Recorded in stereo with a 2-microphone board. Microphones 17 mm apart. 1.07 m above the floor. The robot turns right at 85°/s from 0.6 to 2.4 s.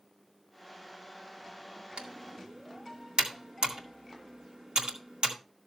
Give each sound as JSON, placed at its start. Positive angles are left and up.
{"t": 2.0, "sound": "typing on a keyboard", "side_deg": -85, "distance_m": 2.0}